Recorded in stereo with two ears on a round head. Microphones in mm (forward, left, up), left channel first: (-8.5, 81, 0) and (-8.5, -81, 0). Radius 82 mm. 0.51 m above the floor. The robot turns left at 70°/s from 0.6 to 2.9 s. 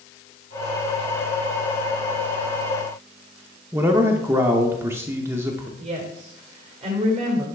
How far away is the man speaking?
About 0.7 m.